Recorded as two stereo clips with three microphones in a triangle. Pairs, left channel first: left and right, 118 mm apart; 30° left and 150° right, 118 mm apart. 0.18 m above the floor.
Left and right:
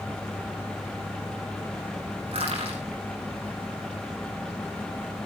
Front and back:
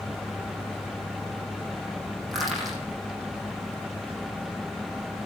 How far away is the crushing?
About 7 m.